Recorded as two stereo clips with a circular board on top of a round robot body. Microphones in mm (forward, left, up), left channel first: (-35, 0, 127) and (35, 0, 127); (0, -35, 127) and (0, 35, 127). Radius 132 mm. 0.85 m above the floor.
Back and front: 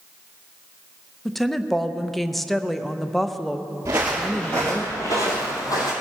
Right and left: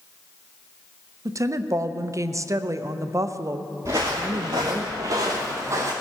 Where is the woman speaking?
95° left, 0.8 m.